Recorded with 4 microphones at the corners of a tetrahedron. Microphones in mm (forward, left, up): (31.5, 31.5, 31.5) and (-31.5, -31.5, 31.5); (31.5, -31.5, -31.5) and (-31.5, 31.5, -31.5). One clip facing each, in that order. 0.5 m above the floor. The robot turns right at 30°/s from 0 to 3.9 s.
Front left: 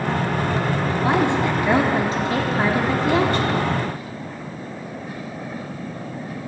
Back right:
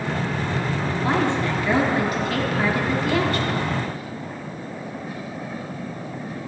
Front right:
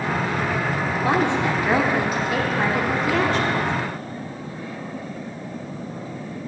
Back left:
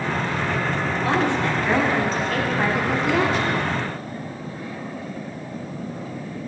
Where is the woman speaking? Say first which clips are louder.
Front left 2 dB, front right 1 dB; 10° right, 1.3 m; by 3.7 s 70° left, 1.3 m.